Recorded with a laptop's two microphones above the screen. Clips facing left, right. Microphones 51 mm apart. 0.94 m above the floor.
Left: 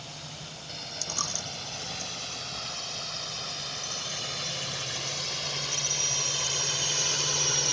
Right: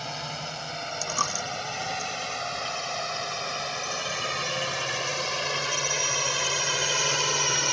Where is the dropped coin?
40° right (ahead or behind).